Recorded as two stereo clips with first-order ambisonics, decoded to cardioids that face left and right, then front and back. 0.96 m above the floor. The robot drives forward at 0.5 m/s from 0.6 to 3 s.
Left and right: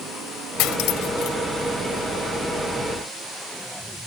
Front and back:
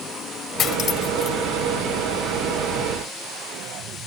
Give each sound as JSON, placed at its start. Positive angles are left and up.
{"t": 0.6, "sound": "cutlery clinking", "azimuth_deg": 60}